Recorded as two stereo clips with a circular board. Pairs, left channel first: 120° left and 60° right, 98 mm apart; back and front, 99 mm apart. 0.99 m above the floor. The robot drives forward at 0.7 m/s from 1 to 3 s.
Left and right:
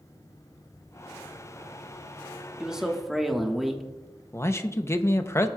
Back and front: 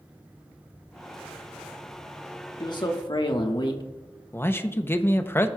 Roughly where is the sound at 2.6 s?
Behind right.